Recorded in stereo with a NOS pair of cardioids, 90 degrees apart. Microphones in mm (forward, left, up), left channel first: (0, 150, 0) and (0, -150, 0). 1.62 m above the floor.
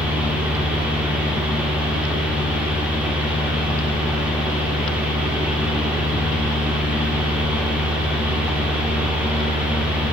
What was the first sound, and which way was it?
A fan, 5° right.